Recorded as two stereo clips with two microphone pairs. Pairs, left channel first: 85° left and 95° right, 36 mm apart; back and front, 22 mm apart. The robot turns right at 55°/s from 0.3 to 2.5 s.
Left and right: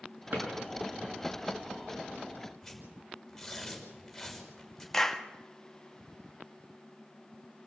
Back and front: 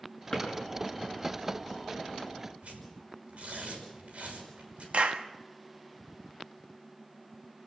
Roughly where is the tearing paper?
Ahead.